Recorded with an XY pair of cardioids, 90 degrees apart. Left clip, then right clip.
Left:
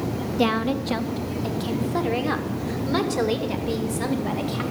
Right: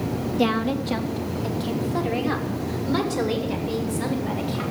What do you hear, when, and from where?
0.4 s a woman speaking: 15° left, 1.1 m; by 4.6 s 30° left, 3 m